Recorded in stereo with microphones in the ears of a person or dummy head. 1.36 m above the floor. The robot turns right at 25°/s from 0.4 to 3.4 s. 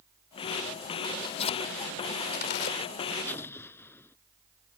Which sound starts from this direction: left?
Tearing paper, at 1.0 s.